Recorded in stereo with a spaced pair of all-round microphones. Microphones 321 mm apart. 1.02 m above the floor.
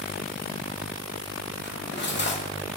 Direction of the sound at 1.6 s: 35° left (ahead or behind).